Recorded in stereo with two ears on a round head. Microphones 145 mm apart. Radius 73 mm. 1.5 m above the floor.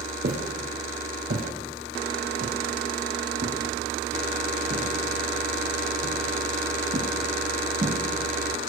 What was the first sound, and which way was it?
Footsteps, 50° right (ahead or behind).